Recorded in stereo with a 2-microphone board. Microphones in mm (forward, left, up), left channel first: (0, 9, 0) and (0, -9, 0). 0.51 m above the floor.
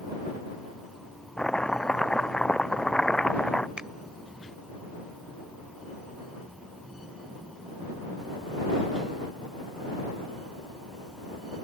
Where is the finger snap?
60° right (ahead or behind).